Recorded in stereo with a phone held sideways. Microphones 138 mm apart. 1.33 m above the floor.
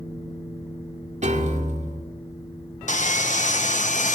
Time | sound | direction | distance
1.2 | a piano | 60° right (ahead or behind) | 2 m
2.9 | sawing | 65° left (ahead or behind) | 1.2 m